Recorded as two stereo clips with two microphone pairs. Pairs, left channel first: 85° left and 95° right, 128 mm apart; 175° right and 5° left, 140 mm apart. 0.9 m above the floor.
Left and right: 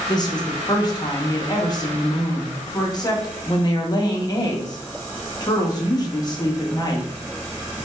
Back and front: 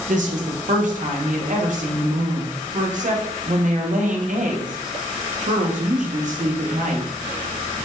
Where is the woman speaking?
30° left, 0.8 m.